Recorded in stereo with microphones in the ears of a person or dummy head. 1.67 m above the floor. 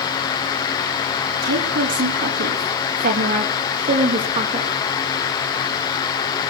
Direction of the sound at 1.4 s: 65° right (ahead or behind).